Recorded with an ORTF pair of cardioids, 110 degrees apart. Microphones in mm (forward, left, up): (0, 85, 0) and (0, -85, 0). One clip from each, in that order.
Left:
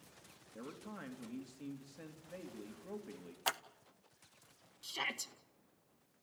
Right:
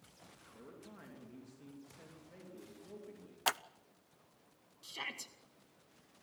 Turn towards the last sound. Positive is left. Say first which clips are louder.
# left 4 dB
turn(degrees=20)